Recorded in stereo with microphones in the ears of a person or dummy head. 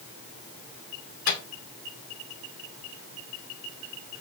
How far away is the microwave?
About 1.8 m.